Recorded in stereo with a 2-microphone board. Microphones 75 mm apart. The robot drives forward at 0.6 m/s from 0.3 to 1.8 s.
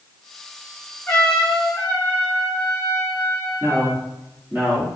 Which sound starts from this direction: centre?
A trumpet, at 1.1 s.